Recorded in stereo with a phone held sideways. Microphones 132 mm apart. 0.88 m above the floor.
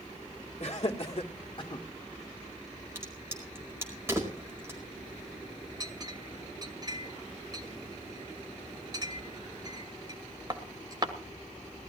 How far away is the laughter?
About 2 m.